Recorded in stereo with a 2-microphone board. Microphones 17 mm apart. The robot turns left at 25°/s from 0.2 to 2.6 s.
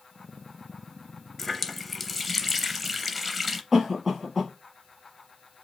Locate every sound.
1.4 s a running tap: 10° left (ahead or behind), 0.6 m; by 3.6 s 5° right (ahead or behind), 0.6 m
3.7 s a cough: 25° right (ahead or behind), 1.7 m